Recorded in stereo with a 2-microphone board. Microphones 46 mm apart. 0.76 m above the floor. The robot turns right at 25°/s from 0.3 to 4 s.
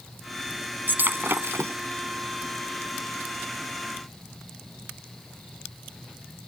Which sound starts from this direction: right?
Breaking glass, at 0.9 s.